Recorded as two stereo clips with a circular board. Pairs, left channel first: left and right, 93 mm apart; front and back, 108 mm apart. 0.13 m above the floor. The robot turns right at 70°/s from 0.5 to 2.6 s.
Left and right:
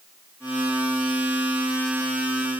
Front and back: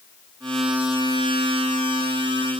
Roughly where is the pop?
I don't hear a pop.